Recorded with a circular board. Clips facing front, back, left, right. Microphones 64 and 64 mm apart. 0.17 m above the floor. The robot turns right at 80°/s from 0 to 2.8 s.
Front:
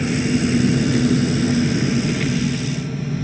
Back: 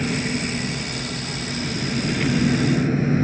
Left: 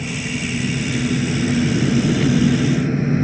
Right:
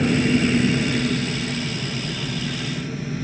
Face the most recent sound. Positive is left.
turn(degrees=140)